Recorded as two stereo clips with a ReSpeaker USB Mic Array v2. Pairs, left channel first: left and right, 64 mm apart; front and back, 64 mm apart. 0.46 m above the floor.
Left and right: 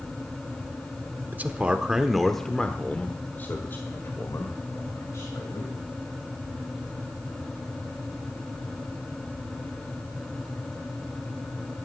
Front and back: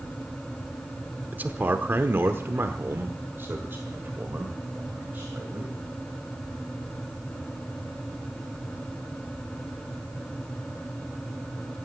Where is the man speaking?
135° right, 0.9 m; by 5.7 s 120° left, 2 m.